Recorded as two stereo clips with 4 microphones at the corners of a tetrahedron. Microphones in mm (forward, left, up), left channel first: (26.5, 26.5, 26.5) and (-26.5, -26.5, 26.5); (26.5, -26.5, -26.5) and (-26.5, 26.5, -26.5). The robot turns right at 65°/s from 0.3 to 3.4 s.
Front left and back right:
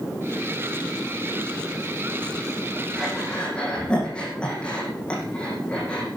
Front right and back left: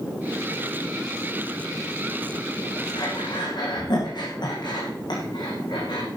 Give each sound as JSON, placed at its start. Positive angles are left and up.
{"t": 3.0, "sound": "breathing", "azimuth_deg": -65, "distance_m": 6.5}